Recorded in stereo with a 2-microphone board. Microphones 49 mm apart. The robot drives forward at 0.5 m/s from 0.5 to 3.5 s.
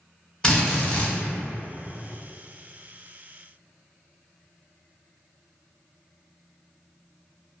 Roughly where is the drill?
Centre.